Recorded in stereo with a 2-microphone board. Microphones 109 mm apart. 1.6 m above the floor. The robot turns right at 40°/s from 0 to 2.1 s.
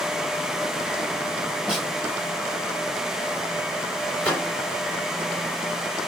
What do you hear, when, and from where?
1.7 s a snare drum: 10° right (ahead or behind), 1.7 m; by 1.9 s 15° right (ahead or behind), 1.7 m
4.2 s a microwave: 10° left (ahead or behind), 1.2 m